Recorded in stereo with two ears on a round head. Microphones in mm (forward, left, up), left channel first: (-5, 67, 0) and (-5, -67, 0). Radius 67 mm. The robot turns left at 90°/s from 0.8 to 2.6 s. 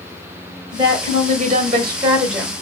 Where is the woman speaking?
40° right, 1.5 m; by 2.5 s 165° left, 1.5 m.